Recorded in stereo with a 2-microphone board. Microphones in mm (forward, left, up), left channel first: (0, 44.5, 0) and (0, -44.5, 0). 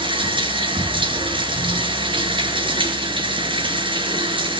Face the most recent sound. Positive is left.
turn(degrees=-70)  # may be behind; listen again after turning